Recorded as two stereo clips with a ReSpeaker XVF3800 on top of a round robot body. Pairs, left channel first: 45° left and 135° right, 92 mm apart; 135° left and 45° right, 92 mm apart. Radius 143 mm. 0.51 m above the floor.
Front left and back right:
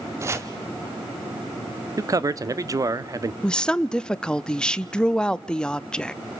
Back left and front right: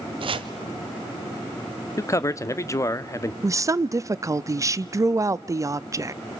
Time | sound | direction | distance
0.2 | chopping | 75° right | 1.2 m
2.0 | a man speaking | 175° right | 1.1 m
3.4 | a woman speaking | 30° right | 0.8 m